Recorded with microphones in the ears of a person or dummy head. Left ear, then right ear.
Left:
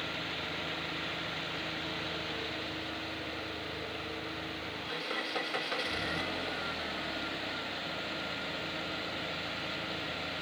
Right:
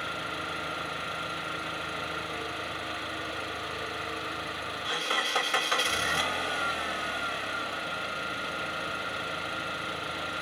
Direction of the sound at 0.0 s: 45° right (ahead or behind).